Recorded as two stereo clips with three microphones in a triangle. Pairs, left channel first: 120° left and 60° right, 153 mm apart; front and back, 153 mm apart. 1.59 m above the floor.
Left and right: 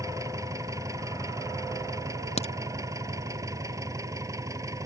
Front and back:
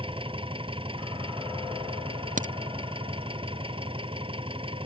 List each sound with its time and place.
0.0 s an engine running: 130° right
2.4 s a crack: 160° left